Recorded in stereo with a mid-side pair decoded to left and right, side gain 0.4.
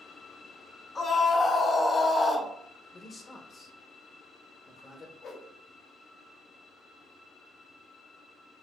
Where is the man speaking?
40° left, 0.9 m.